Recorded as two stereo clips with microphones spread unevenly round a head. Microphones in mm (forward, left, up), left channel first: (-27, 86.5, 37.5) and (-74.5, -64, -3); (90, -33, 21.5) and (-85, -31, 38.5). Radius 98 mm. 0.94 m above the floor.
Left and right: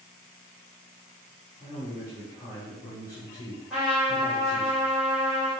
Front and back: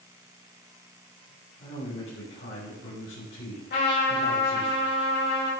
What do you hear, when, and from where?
1.6 s a man speaking: 5° right, 3 m
3.7 s a trumpet: 20° right, 3.5 m